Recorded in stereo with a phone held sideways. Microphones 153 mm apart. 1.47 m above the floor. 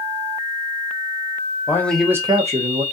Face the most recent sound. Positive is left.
turn(degrees=-70)  # may be behind; listen again after turning